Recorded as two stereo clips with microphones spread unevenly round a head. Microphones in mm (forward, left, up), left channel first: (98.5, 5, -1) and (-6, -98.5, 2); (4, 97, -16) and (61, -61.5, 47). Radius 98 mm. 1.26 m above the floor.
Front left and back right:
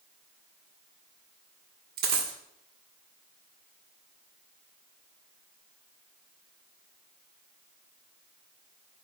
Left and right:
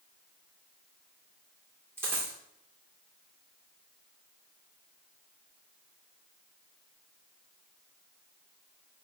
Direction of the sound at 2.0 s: 140° right.